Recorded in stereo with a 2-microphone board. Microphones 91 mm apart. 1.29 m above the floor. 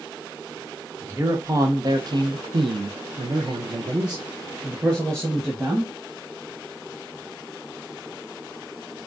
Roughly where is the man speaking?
Right.